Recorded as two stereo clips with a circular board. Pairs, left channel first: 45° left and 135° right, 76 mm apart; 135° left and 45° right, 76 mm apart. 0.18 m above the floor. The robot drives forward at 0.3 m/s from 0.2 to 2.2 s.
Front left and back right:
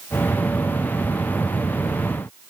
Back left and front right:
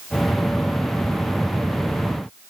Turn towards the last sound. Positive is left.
No sound to turn to.